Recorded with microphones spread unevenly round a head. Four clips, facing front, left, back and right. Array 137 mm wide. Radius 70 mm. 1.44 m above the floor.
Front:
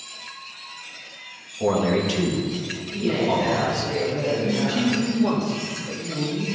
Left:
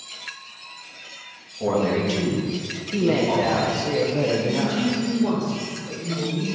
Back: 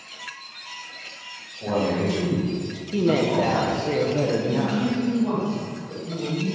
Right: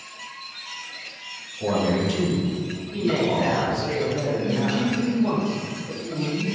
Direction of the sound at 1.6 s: 15° left.